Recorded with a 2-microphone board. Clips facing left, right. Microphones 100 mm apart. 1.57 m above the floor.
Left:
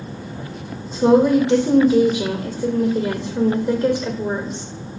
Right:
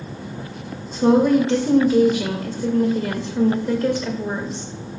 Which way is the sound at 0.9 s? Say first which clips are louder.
Left 1 dB; 10° left (ahead or behind).